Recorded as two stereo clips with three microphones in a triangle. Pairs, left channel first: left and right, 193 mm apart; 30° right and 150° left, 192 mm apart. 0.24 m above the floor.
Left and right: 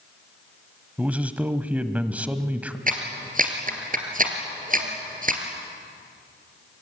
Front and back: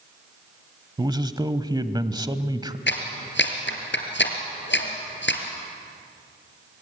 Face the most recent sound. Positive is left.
turn(degrees=-45)